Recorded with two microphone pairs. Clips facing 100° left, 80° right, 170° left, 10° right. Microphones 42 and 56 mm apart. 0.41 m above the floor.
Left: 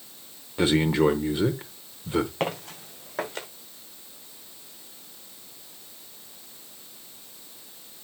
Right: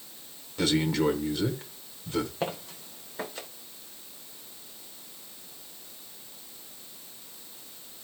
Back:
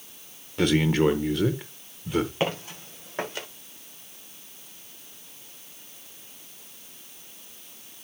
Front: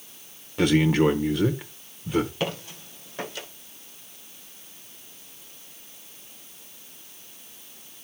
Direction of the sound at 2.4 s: 115° left.